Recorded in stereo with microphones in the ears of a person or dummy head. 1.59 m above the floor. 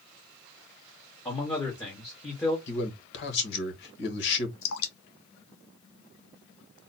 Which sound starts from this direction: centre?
A man speaking, at 1.2 s.